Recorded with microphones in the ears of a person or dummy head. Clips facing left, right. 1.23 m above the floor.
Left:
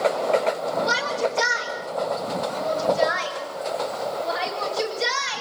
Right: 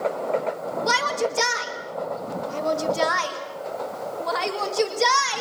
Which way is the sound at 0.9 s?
80° right.